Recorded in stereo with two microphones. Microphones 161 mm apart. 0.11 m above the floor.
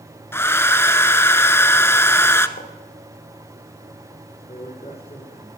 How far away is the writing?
About 4 m.